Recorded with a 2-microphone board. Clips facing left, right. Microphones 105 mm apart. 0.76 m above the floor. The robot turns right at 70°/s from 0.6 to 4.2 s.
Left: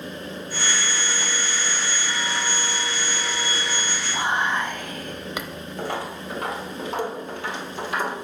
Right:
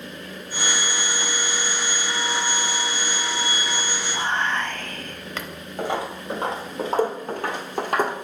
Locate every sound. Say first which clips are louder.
4.1 s whispering: left 1 dB; 10° left (ahead or behind), 0.5 m; by 5.5 s 15° left (ahead or behind), 0.5 m
5.8 s footsteps: right 3 dB; 15° right (ahead or behind), 1.4 m; by 8.2 s 60° right (ahead or behind), 1.4 m